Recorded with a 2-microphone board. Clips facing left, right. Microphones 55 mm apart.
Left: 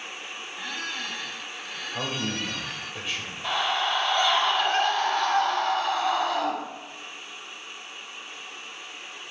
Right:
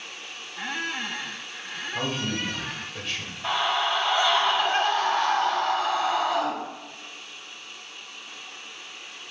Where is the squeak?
30° right (ahead or behind), 0.6 m.